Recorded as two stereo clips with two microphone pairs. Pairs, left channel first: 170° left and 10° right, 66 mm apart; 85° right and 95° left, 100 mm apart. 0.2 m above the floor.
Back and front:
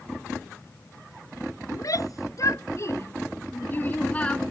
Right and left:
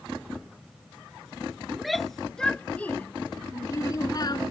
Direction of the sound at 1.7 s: 175° right.